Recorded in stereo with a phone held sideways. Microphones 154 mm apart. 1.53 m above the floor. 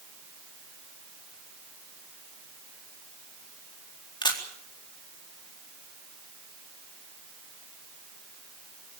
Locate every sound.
4.2 s a camera shutter: 30° left (ahead or behind), 4 m